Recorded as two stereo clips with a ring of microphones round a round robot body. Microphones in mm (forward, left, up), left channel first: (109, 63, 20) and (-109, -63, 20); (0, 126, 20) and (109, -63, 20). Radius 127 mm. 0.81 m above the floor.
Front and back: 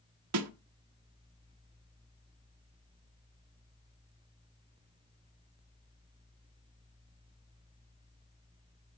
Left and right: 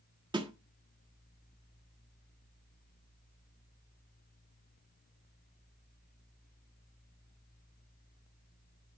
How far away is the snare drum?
About 1.2 m.